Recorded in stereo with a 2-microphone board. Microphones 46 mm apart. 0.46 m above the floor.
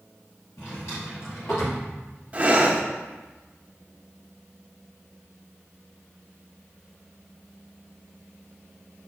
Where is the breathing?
30° right (ahead or behind), 0.6 m.